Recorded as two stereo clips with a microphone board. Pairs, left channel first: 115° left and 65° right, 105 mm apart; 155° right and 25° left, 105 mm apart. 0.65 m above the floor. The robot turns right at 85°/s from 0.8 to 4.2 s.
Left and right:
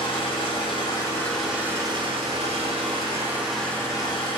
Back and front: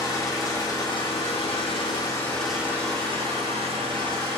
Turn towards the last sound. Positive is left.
turn(degrees=80)